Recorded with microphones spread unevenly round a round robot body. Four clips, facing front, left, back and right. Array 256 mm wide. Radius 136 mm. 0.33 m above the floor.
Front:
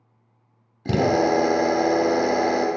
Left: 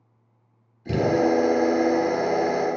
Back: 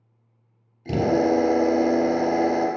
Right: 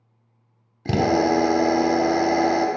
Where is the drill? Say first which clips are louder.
Right 1 dB, front 1 dB; 50° right, 0.9 m.